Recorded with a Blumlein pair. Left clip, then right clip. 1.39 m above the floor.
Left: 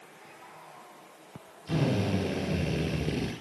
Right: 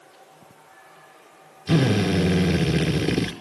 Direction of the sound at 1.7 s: 60° right.